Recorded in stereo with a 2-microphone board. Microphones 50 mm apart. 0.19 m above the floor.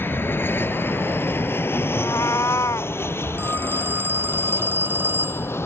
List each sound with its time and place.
0.0 s an aircraft: 45° left (ahead or behind); by 5.7 s 55° left (ahead or behind)
1.9 s a cat meowing: 75° left (ahead or behind)
3.4 s a phone ringing: 40° right (ahead or behind)